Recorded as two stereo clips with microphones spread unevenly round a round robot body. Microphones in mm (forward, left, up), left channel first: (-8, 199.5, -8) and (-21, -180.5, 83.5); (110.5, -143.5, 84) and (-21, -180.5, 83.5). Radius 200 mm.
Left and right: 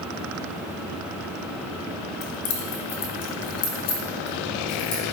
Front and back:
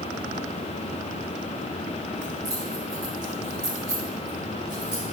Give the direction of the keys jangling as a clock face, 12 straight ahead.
8 o'clock.